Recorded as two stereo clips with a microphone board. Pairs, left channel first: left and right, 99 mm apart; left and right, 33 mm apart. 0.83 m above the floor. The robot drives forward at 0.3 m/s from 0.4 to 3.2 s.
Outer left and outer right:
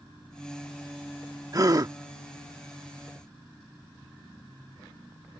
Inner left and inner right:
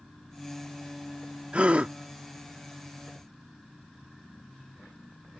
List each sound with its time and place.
1.5 s a gasp: 40° right (ahead or behind); by 1.9 s 45° right (ahead or behind)